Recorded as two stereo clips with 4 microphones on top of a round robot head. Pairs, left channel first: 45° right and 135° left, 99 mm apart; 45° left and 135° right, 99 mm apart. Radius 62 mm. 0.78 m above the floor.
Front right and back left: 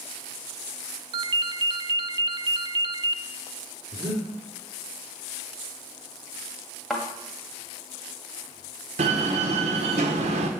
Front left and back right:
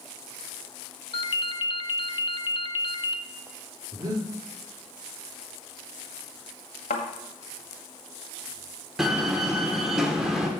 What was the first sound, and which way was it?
A ringtone, 90° left.